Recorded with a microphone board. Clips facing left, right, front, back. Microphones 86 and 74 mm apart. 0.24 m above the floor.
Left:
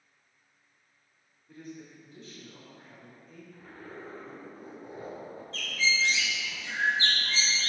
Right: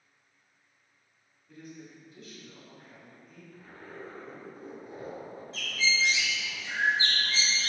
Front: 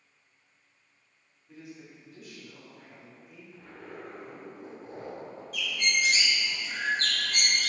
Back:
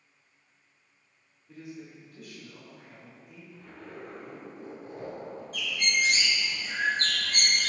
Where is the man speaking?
75° left, 1.7 m.